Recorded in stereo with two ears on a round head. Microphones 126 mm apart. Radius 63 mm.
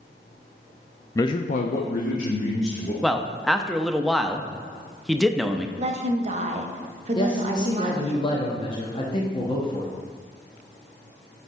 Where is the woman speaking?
50° right (ahead or behind), 1.1 m.